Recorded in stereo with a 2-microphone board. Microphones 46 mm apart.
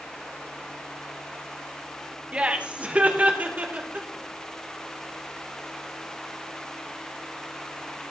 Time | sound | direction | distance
2.3 | laughter | 25° right (ahead or behind) | 1.5 m